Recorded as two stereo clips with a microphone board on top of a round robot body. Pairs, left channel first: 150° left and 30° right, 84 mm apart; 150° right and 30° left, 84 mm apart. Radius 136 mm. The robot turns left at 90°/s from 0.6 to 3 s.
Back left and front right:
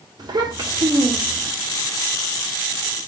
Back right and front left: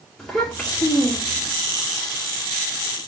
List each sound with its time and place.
0.2 s a child speaking: 70° right, 2 m; by 1.5 s 155° right, 2 m